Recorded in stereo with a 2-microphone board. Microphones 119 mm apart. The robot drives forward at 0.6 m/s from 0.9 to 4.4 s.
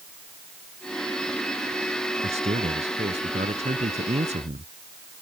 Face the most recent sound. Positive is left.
turn(degrees=-75)  # may be behind; listen again after turning